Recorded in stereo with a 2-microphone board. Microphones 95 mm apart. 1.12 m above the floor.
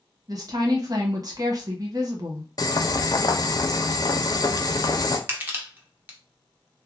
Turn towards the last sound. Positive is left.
turn(degrees=-20)  # may be behind; listen again after turning